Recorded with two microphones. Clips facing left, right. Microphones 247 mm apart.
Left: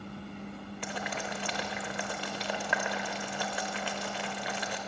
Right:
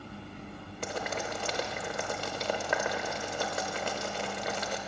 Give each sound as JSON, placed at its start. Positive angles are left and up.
{"t": 0.8, "sound": "boiling", "side_deg": -50, "distance_m": 0.9}